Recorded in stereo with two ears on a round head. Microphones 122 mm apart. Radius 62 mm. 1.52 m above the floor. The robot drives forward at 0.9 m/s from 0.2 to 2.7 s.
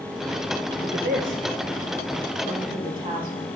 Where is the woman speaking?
90° right, 1.4 m; by 3.5 s 40° right (ahead or behind), 2 m.